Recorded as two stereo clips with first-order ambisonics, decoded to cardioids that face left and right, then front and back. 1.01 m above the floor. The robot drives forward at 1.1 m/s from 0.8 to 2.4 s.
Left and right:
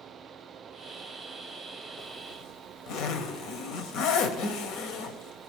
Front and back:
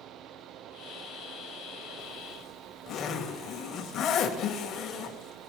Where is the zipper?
45° left, 2 m; by 5.5 s 55° left, 1.9 m.